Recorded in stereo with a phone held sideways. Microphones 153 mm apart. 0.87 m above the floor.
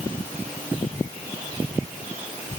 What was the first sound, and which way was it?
Only background noise.